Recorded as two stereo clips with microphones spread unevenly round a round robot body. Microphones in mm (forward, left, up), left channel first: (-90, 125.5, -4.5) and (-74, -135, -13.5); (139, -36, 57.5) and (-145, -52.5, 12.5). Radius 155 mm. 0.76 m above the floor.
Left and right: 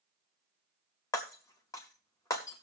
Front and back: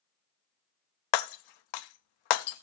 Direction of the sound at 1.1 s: 15° left.